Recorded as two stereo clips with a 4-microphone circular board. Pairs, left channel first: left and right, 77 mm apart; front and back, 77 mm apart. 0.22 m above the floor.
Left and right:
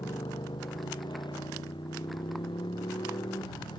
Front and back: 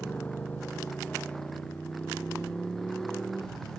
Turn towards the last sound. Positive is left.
turn(degrees=85)